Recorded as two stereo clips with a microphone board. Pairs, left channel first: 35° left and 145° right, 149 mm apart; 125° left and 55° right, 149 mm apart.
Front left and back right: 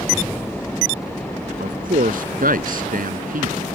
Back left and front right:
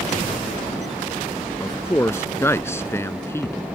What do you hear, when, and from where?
1.6 s a man speaking: 165° right